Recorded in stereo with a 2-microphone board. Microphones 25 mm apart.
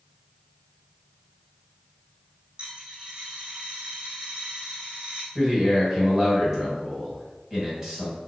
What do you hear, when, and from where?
2.6 s a dropped coin: 40° right (ahead or behind), 2 m
5.3 s a man speaking: 15° right (ahead or behind), 1.8 m